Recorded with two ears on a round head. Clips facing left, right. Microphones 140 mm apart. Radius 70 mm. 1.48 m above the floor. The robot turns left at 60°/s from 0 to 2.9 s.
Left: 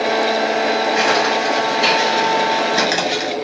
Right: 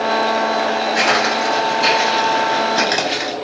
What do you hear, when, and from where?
0.9 s footsteps: 35° right (ahead or behind), 1.9 m; by 3.4 s centre (ahead or behind), 1.5 m